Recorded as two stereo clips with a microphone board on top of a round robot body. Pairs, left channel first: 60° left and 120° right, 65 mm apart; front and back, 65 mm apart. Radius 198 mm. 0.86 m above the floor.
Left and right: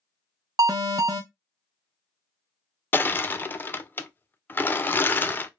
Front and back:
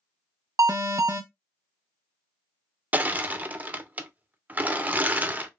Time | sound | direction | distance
0.6 | an alarm | 145° right | 0.6 m
2.9 | crushing | 120° left | 0.5 m